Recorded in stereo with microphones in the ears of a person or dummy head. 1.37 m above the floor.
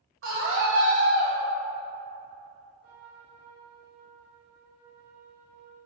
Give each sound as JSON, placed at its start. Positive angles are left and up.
{"t": 0.2, "sound": "a scream", "side_deg": -65, "distance_m": 1.4}
{"t": 2.8, "sound": "a trumpet", "side_deg": -75, "distance_m": 1.8}